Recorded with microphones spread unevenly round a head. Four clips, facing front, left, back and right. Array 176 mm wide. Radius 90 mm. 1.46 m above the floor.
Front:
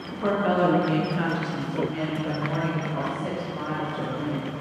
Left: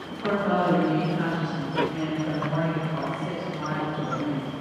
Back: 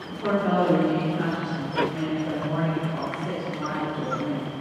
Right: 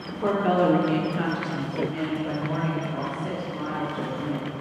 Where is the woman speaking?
75° right, 1.5 m; by 4.5 s 15° right, 3 m.